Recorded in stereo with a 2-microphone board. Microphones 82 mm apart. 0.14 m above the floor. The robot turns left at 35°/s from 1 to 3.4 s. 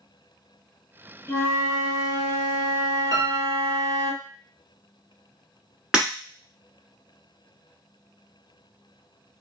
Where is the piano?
50° right (ahead or behind), 1.1 m; by 3.8 s 40° right (ahead or behind), 1.1 m.